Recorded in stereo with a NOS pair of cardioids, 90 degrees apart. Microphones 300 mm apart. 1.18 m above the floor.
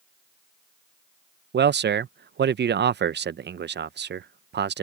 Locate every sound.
1.5 s a man speaking: 35° right